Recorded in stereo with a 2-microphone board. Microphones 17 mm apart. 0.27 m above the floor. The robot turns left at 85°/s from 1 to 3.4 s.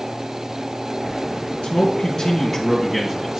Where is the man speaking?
90° left, 3 m; by 3.4 s 60° right, 3 m.